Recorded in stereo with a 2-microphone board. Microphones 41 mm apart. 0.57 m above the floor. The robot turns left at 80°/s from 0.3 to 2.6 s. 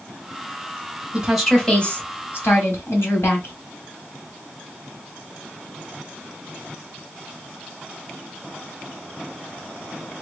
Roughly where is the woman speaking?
Behind.